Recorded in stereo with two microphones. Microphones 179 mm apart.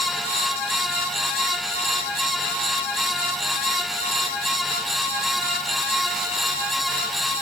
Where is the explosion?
I don't hear an explosion.